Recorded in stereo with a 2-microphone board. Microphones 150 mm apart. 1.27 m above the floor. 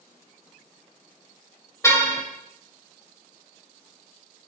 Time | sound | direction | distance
1.8 | a car horn | 20° left (ahead or behind) | 3 m